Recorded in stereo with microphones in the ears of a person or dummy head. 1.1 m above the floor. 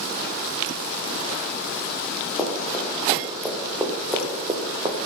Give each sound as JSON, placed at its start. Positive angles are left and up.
{"t": 2.4, "sound": "running footsteps", "side_deg": 15, "distance_m": 4.5}